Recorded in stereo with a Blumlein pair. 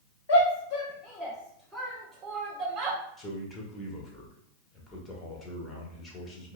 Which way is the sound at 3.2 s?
15° left.